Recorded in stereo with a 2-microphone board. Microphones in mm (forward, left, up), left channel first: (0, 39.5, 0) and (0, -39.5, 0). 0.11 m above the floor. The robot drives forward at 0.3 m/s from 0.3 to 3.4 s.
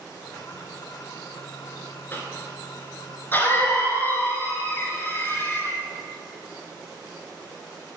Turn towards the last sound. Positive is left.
turn(degrees=25)  # may be behind; listen again after turning